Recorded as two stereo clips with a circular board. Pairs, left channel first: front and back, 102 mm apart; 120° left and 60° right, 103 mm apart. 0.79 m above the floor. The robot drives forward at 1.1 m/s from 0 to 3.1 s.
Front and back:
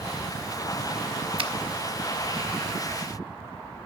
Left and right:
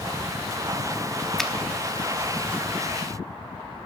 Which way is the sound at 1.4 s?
155° right.